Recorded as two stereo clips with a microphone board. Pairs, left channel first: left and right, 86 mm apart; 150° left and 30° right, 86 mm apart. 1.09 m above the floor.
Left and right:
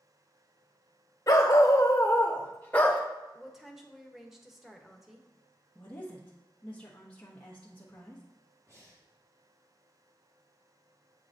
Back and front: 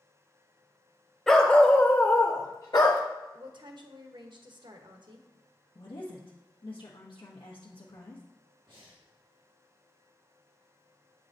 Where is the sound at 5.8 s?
170° left, 1.1 m.